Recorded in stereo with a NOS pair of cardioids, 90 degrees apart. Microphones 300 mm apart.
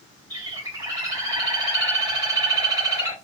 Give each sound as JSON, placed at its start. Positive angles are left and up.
{"t": 0.3, "sound": "a bird", "azimuth_deg": -15, "distance_m": 1.8}